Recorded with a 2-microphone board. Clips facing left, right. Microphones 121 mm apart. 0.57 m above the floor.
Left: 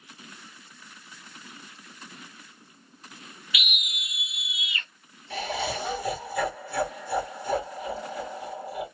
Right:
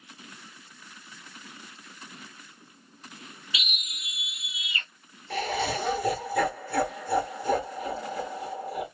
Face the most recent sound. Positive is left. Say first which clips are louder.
# right 2 dB
turn(degrees=-50)  # may be behind; listen again after turning